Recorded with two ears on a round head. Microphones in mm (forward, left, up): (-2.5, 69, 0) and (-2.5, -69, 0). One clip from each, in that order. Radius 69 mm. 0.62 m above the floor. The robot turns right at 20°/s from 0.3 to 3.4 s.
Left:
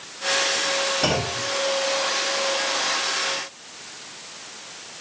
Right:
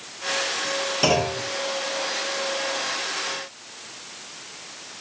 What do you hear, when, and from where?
1.0 s a clunk: 75° right (ahead or behind), 1.0 m; by 1.4 s 80° right, 1.0 m